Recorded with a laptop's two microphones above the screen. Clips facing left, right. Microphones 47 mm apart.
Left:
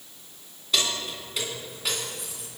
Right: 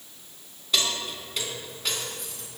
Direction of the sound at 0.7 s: Centre (ahead or behind).